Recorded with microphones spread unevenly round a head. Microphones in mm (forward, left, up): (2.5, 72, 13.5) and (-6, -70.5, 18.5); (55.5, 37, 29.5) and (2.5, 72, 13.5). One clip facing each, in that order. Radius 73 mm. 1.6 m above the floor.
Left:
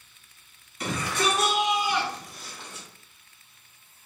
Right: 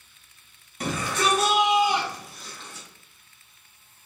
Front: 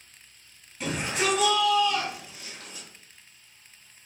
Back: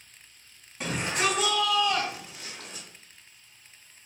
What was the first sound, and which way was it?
A shout, 140° right.